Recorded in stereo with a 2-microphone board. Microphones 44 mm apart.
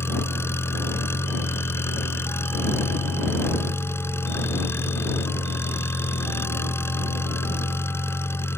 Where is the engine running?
75° left (ahead or behind).